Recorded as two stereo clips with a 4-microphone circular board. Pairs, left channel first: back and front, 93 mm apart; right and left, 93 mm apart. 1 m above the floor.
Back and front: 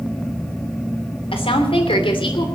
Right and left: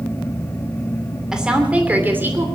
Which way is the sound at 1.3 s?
175° left.